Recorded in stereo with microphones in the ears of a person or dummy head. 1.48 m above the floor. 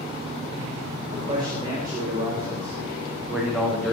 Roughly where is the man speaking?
Right.